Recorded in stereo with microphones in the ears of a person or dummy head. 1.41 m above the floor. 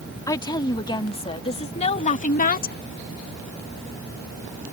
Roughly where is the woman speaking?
Centre.